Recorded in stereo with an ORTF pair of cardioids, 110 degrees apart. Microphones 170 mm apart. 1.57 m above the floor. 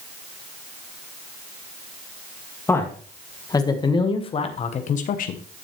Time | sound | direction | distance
2.7 | a man speaking | 15° left | 2 m